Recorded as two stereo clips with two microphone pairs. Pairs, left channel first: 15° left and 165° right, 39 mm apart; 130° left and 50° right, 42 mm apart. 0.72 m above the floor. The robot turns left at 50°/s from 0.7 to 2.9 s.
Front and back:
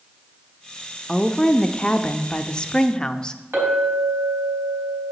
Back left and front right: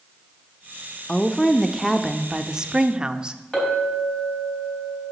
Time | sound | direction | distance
1.1 | a woman speaking | 75° left | 0.5 m
3.5 | a clink | 155° right | 4 m